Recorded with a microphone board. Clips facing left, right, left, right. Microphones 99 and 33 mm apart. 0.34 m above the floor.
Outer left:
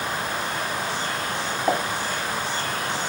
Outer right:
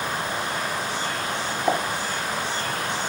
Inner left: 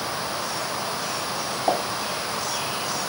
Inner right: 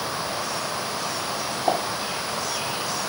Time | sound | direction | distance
1.7 | a pop | 5° right (ahead or behind) | 1.0 m